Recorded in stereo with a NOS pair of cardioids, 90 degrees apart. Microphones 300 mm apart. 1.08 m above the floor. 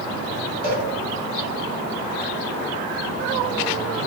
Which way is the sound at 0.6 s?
25° right.